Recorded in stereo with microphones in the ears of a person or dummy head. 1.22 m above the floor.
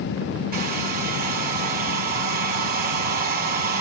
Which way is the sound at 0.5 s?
45° right (ahead or behind).